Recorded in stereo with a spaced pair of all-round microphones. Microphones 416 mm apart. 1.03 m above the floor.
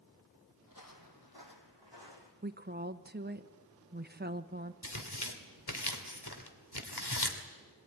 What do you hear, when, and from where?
0.7 s footsteps: 50° left (ahead or behind), 1.7 m; by 2.3 s 70° left (ahead or behind), 3 m
2.4 s a woman speaking: 25° right (ahead or behind), 0.9 m
4.8 s tearing paper: 65° left (ahead or behind), 2 m